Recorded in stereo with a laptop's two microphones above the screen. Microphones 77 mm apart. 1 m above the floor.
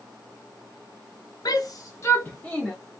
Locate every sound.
1.4 s a shout: 55° left (ahead or behind), 0.9 m; by 2.8 s 10° left (ahead or behind), 1.3 m